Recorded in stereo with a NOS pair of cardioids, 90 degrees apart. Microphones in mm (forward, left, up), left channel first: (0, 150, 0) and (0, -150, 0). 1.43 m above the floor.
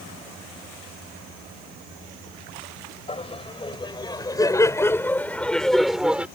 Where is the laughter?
20° left; by 6.3 s 5° right.